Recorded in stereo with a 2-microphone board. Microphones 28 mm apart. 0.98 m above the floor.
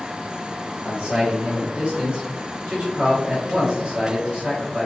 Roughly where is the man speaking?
Right.